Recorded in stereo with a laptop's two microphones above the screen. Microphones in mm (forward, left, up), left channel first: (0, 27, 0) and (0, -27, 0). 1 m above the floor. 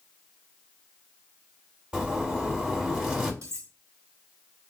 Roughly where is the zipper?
Right.